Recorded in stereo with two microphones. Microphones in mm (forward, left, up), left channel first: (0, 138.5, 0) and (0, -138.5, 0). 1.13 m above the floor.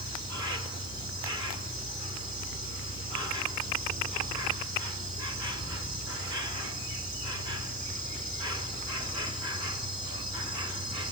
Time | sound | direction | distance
0.0 | an insect | 75° right (ahead or behind) | 3 m